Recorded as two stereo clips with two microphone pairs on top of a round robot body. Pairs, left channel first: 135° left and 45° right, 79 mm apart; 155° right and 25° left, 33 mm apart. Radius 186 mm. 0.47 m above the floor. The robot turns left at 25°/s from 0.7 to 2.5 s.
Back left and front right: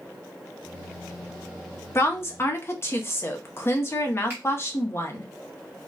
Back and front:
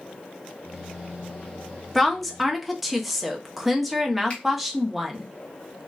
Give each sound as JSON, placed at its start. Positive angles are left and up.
{"t": 1.9, "sound": "a woman speaking", "azimuth_deg": 135, "distance_m": 1.1}
{"t": 4.3, "sound": "a finger snap", "azimuth_deg": -105, "distance_m": 1.9}